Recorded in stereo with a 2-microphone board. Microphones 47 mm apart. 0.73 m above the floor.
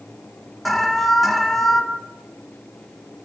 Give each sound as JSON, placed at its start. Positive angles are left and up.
{"t": 0.7, "sound": "an alarm", "side_deg": 0, "distance_m": 5.0}